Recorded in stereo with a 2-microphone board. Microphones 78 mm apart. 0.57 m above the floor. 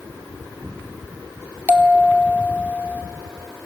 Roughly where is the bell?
Right.